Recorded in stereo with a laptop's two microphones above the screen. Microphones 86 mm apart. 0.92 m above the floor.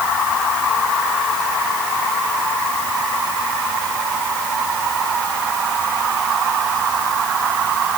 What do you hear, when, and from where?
Only background noise.